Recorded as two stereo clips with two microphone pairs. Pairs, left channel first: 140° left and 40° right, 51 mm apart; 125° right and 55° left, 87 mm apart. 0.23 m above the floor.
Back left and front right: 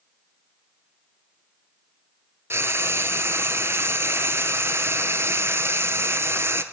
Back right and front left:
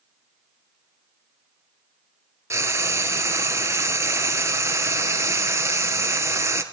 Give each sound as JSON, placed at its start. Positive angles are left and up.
{"t": 2.5, "sound": "frying", "azimuth_deg": 0, "distance_m": 1.3}